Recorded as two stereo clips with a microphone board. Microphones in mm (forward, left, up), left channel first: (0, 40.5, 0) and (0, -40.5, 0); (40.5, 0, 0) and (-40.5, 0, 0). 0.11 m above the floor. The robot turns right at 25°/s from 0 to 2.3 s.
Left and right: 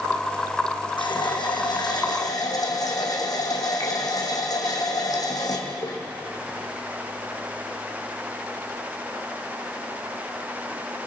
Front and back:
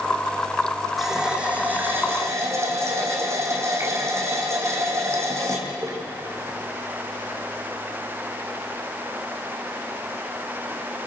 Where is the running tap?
95° left, 3.5 m; by 6.0 s 125° left, 3.5 m.